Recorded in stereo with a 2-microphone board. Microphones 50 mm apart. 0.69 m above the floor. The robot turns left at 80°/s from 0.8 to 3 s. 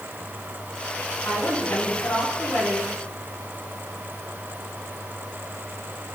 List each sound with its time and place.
1.2 s a woman speaking: 140° left, 5 m; by 2.9 s 5° left, 5 m